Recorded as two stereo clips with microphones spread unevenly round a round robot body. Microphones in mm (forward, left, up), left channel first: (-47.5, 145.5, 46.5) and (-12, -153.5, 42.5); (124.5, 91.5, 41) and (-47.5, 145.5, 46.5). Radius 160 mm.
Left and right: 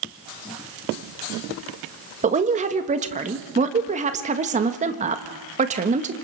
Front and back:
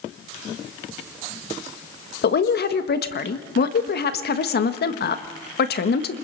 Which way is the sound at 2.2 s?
20° right.